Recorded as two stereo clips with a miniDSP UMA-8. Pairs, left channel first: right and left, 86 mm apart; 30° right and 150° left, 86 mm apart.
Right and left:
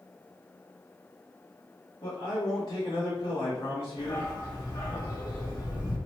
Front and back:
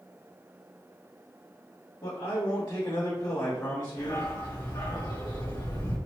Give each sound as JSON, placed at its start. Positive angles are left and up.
{"t": 2.0, "sound": "a man speaking", "azimuth_deg": -55, "distance_m": 1.9}
{"t": 4.0, "sound": "a dog barking", "azimuth_deg": -55, "distance_m": 1.9}